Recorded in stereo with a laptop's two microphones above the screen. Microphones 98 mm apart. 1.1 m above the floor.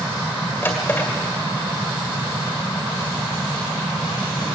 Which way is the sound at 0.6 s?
20° left (ahead or behind).